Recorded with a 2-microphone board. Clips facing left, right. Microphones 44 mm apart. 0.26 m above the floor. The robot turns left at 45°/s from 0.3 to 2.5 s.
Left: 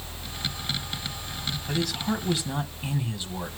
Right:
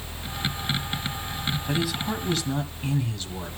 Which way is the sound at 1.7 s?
160° right.